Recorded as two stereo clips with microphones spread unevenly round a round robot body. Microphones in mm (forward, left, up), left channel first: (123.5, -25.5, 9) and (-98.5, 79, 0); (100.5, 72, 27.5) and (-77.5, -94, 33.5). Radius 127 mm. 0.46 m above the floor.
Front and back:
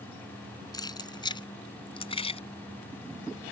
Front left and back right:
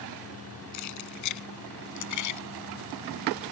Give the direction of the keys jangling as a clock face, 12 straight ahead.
10 o'clock.